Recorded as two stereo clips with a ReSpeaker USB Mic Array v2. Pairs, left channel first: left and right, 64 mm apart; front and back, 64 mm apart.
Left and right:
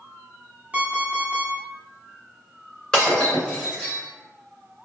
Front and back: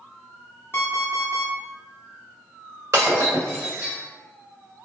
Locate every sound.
0.7 s an alarm clock: 35° right, 1.0 m
2.9 s breaking glass: 160° left, 1.6 m